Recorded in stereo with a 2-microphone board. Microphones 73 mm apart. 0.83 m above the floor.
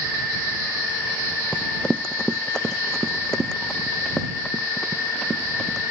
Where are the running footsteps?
15° left (ahead or behind); by 5.9 s 5° left (ahead or behind).